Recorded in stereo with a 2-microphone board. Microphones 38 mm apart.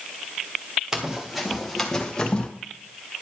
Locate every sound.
0.9 s running footsteps: 15° right (ahead or behind), 1.9 m; by 2.5 s 25° left (ahead or behind), 1.8 m